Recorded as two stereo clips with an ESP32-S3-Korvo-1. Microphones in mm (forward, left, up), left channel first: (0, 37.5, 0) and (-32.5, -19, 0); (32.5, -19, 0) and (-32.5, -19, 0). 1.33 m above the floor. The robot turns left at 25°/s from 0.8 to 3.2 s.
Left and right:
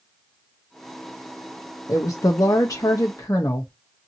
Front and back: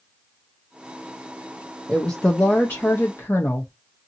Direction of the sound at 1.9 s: 75° left.